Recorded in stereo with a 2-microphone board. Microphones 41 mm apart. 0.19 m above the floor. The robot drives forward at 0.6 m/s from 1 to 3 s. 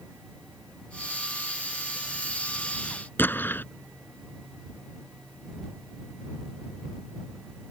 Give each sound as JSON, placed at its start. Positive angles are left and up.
{"t": 3.2, "sound": "an explosion", "side_deg": 60}